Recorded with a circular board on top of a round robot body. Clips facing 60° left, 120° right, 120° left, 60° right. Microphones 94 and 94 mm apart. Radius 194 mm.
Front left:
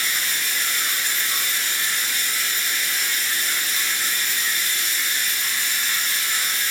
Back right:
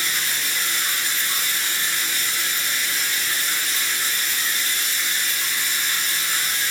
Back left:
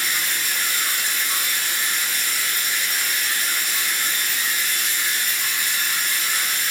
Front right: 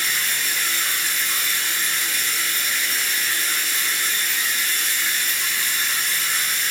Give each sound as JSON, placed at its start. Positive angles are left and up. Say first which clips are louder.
{"t": 0.0, "sound": "running water", "louder": "even, even", "azimuth_deg": -170, "distance_m": 1.9}